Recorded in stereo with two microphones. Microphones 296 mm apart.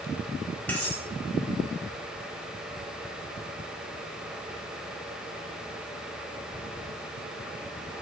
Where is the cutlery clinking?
5° left (ahead or behind), 1.7 m.